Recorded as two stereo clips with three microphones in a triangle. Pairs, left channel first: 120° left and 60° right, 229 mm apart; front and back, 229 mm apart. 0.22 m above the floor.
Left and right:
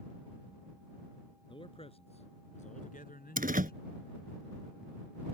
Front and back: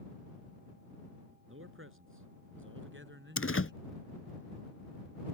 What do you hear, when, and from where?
1.5 s a man speaking: 175° right; by 3.8 s 155° left
3.4 s a door slam: 10° right